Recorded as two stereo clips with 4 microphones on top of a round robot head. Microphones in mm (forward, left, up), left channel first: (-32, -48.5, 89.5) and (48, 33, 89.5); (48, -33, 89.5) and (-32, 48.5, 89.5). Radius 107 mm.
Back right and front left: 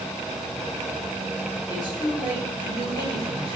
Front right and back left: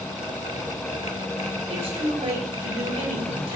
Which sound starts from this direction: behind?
A man speaking, at 1.7 s.